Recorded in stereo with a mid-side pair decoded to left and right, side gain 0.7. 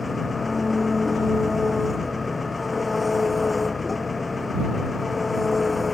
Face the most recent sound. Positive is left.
turn(degrees=15)